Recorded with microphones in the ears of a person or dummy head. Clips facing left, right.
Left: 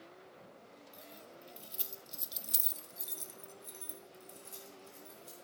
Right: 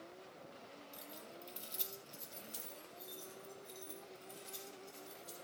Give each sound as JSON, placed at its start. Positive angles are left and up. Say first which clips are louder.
{"t": 0.9, "sound": "keys jangling", "louder": "left 1 dB", "side_deg": -10, "distance_m": 1.7}